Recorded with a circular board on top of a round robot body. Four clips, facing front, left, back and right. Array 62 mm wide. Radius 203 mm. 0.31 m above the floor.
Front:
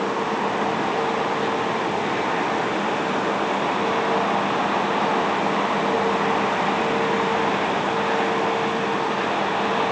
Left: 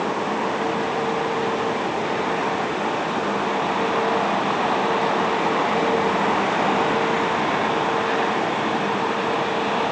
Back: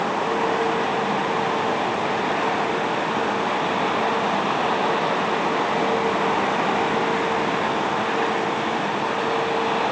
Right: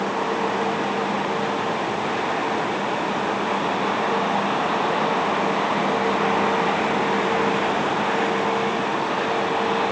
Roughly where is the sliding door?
No sliding door in this recording.